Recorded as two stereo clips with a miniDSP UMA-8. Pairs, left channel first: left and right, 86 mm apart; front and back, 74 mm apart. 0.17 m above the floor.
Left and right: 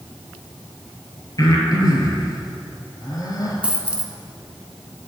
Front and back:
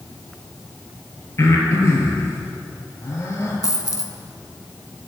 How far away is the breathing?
About 1.7 m.